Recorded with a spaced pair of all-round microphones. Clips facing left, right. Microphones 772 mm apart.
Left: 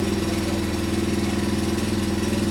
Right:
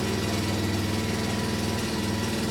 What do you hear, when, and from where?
0.0 s an engine running: 75° left (ahead or behind), 1.7 m